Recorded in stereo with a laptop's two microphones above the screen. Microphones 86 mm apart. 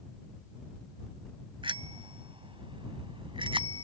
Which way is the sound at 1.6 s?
85° right.